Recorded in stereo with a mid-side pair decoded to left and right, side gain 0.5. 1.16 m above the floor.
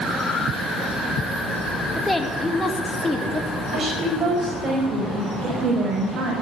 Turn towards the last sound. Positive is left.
turn(degrees=-45)